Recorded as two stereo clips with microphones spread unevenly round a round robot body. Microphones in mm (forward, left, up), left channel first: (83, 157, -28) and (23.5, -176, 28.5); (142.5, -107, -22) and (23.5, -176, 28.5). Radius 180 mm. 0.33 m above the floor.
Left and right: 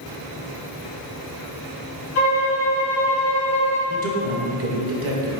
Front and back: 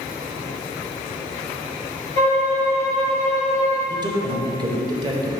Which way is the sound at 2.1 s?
135° left.